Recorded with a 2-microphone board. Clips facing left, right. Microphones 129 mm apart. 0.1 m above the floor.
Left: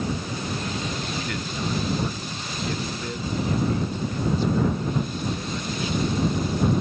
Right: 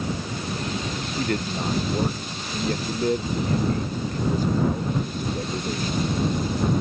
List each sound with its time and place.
1.2 s a man speaking: 45° right (ahead or behind)